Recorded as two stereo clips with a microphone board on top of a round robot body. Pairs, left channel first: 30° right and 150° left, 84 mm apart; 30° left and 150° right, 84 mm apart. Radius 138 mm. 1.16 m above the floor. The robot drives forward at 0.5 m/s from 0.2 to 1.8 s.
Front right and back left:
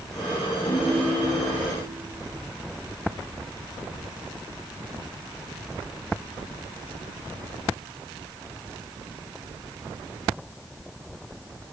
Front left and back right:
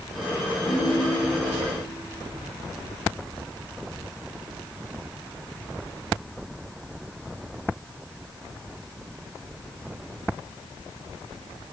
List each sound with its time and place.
0.7 s a ringtone: straight ahead, 5.5 m